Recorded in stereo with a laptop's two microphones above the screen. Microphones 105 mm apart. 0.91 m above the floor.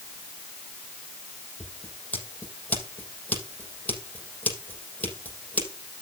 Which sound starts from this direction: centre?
Scissors, at 1.6 s.